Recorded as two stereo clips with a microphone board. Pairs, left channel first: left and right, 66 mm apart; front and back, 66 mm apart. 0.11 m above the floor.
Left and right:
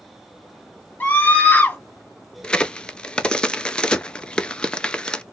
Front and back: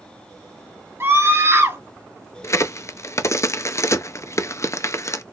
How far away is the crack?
About 0.5 m.